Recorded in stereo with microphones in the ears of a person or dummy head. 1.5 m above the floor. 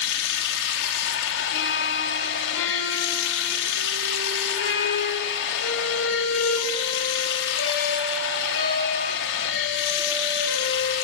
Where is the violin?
85° left, 6.5 m.